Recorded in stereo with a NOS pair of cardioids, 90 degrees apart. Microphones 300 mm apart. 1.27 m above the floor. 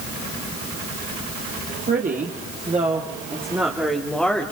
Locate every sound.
1.9 s a woman speaking: 30° right, 2.5 m; by 4.5 s 5° left, 3 m